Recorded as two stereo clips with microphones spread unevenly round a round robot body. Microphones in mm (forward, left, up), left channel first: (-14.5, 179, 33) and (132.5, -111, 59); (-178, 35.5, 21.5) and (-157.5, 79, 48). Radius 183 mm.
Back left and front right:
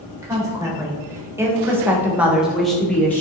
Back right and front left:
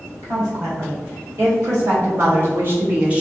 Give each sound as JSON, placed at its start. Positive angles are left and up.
{"t": 0.2, "sound": "a woman speaking", "azimuth_deg": 20, "distance_m": 1.4}